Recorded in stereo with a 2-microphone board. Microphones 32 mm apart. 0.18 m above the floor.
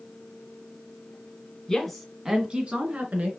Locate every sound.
1.7 s a woman speaking: 15° left (ahead or behind), 1.4 m; by 3.3 s 60° right (ahead or behind), 1.9 m